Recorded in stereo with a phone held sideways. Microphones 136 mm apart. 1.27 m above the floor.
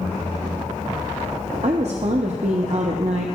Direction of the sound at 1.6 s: 55° right (ahead or behind).